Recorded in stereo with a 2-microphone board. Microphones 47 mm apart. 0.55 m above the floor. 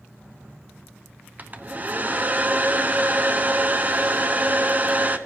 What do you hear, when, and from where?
1.4 s a hair dryer: 35° right (ahead or behind), 0.8 m